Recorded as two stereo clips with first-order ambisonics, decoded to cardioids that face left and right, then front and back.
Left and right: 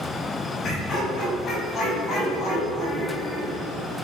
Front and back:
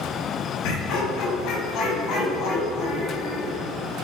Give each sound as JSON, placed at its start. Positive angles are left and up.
{"t": 0.6, "sound": "laughter", "azimuth_deg": 30, "distance_m": 3.0}